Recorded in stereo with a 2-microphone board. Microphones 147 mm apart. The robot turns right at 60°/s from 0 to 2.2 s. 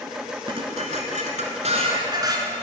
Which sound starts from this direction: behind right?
Dishes clattering, at 0.5 s.